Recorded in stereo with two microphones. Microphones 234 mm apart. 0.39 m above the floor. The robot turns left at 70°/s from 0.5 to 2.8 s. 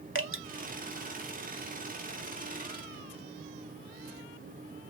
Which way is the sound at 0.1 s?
60° right (ahead or behind).